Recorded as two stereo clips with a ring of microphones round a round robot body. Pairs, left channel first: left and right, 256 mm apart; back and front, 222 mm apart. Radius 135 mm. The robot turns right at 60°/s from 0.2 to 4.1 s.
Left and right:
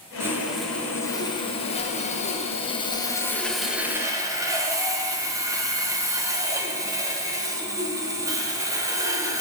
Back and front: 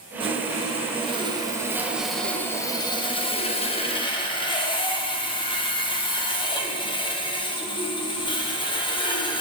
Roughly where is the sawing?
Ahead right.